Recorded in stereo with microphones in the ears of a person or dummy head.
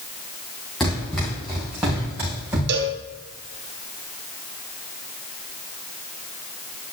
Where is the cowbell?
55° right (ahead or behind), 1.6 m.